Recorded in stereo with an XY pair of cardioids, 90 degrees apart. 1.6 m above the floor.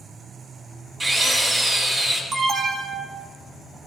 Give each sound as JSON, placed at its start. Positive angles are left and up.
{"t": 1.0, "sound": "a drill", "azimuth_deg": -35, "distance_m": 4.0}
{"t": 2.3, "sound": "an alarm", "azimuth_deg": -60, "distance_m": 2.0}